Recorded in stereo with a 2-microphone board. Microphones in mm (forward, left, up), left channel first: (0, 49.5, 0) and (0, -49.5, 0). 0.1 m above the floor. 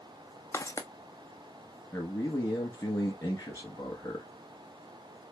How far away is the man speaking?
About 1.2 m.